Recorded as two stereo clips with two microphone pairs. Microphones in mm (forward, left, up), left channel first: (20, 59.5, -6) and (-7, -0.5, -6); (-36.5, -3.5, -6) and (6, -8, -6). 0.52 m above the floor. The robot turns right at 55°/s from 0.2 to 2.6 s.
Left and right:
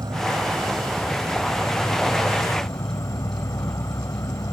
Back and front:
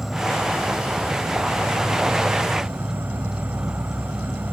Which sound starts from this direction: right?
An insect, at 0.0 s.